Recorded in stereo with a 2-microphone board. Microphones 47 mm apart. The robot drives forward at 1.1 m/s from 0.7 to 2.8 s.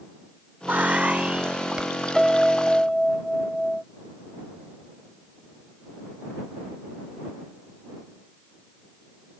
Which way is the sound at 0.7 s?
40° right (ahead or behind).